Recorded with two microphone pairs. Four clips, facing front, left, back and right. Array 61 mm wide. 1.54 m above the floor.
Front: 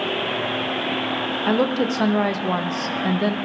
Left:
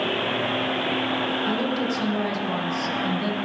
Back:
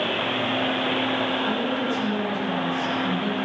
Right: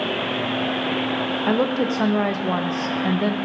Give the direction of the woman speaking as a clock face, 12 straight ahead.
1 o'clock.